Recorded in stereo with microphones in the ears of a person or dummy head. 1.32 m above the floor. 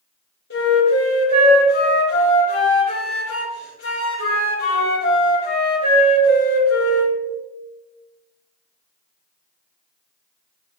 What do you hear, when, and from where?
0.5 s a flute: 60° left (ahead or behind), 3 m